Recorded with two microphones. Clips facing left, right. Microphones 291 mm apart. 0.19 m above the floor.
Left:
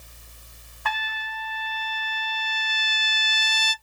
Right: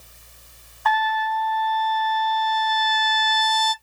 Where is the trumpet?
30° left (ahead or behind), 0.6 m.